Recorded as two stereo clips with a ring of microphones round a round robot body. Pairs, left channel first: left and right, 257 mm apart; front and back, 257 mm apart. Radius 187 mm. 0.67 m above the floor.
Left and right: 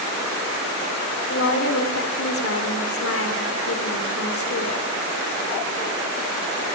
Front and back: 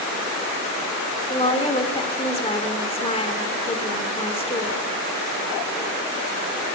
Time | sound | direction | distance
1.3 | a woman speaking | 65° left | 3 m